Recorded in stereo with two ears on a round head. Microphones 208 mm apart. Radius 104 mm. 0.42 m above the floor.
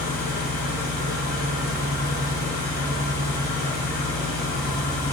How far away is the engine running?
About 2.5 m.